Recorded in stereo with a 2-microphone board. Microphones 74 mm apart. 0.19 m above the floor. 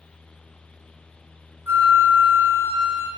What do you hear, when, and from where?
1.7 s a flute: 35° right (ahead or behind), 0.7 m